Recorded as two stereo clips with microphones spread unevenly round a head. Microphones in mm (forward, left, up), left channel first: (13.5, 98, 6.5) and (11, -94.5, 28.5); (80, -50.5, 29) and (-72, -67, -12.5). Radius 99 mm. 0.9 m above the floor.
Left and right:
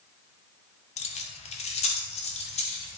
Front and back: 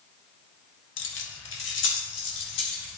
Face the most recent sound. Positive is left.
turn(degrees=30)